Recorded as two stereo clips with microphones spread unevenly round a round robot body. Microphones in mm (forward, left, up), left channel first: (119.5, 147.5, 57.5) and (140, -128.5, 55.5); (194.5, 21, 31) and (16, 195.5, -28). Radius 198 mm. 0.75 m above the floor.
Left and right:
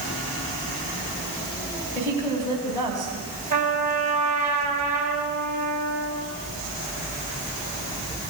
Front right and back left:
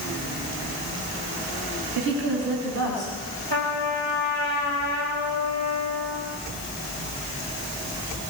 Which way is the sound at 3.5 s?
155° right.